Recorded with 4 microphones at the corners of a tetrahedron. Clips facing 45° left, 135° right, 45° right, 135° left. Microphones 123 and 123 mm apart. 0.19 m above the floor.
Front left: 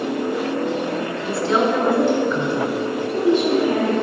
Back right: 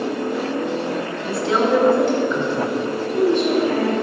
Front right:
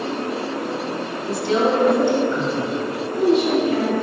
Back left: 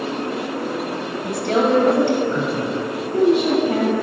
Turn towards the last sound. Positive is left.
turn(degrees=110)